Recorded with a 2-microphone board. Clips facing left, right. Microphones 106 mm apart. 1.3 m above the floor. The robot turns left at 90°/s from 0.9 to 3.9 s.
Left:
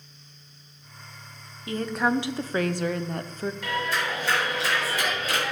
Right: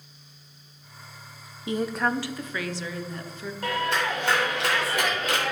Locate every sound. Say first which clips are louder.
1.7 s a woman speaking: left 1 dB; 155° right, 0.6 m; by 3.5 s 40° left, 0.6 m
3.6 s a clap: right 4 dB; 40° right (ahead or behind), 3.5 m; by 5.5 s 65° right (ahead or behind), 3.5 m